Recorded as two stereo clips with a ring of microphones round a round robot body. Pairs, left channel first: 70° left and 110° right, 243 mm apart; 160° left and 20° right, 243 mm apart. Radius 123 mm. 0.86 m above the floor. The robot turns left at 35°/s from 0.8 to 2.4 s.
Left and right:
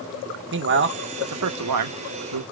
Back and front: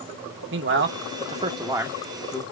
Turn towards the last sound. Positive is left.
turn(degrees=-125)